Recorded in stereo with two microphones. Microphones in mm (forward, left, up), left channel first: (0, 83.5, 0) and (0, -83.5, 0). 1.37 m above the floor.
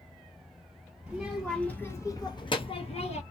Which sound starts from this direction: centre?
A child speaking, at 1.1 s.